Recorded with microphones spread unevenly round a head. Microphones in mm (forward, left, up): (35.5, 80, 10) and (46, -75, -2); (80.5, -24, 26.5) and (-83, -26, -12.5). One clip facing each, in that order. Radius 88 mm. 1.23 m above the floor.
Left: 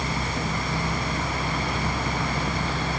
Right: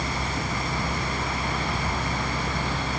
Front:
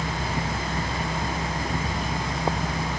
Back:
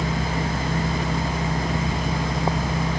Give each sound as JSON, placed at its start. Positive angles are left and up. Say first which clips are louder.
{"t": 0.0, "sound": "a machine running", "louder": "left 1 dB, back 4 dB", "azimuth_deg": 170, "distance_m": 1.7}